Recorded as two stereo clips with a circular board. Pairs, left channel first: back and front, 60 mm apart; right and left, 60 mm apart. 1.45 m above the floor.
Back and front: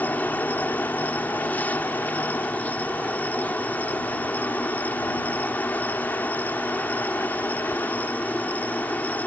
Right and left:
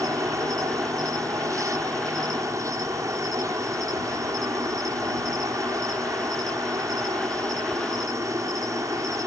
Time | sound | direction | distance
0.0 | an insect | 115° left | ?